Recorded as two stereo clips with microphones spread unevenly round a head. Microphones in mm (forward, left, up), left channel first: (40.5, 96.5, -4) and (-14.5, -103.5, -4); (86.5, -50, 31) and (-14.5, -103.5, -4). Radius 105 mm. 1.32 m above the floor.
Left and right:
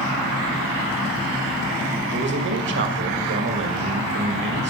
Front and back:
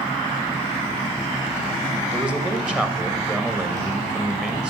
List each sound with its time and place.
2.1 s a man speaking: 70° right, 1.7 m